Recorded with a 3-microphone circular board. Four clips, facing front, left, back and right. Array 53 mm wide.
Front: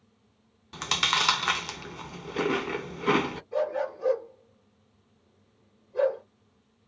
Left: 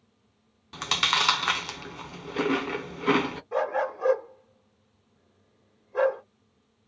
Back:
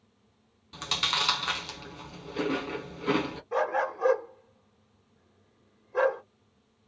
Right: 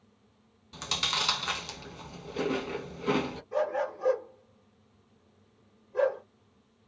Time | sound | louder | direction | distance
0.7 | chewing | left 7 dB, front 4 dB | 55° left | 0.6 m
3.5 | a dog barking | left 2 dB, back 2 dB | 150° left | 1.4 m